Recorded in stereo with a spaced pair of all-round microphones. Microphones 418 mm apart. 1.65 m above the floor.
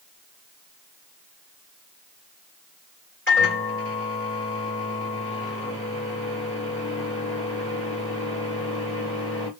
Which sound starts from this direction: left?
A microwave, at 3.3 s.